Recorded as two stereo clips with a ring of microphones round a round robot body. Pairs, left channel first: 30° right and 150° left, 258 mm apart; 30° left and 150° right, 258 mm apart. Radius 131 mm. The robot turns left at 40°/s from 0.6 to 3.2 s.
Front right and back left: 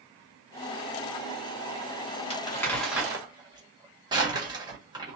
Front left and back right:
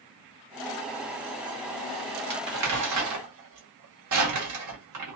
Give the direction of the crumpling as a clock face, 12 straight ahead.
3 o'clock.